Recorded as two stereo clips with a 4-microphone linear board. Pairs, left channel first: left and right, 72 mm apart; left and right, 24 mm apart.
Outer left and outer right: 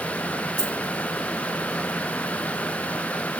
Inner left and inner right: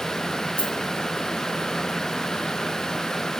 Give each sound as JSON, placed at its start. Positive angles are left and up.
{"t": 0.6, "sound": "a dropped coin", "side_deg": 80, "distance_m": 1.8}